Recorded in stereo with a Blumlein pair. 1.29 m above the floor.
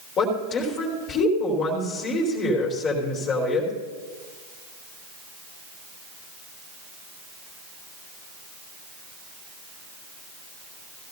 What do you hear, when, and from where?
0.2 s a woman speaking: 30° left, 4 m